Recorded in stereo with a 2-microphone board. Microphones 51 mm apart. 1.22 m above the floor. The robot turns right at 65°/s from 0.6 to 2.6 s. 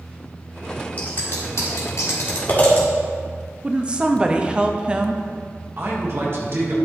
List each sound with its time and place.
1.0 s scissors: 30° left (ahead or behind), 1.9 m; by 2.9 s 40° left (ahead or behind), 1.9 m
3.6 s a woman speaking: 20° right (ahead or behind), 0.7 m
5.8 s a man speaking: 50° right (ahead or behind), 1.7 m